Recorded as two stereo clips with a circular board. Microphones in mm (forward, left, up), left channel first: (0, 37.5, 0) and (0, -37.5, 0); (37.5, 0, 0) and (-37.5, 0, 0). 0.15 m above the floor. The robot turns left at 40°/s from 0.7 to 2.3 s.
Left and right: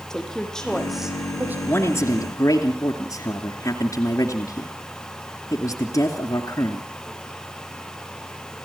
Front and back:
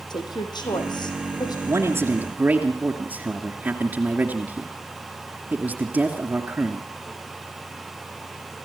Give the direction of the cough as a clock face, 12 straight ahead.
I don't hear a cough.